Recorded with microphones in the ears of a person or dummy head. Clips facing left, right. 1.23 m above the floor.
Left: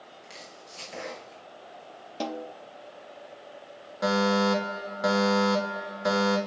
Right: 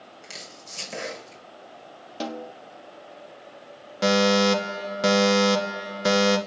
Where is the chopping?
70° right (ahead or behind), 6.5 m.